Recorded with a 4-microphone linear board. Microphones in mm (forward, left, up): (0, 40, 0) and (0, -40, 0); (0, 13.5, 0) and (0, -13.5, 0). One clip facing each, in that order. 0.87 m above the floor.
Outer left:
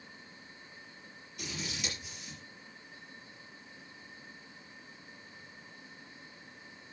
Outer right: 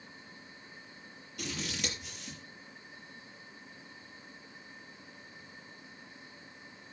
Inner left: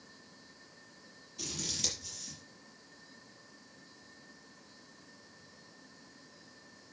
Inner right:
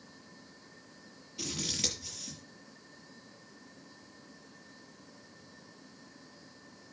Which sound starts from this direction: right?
Scissors, at 1.4 s.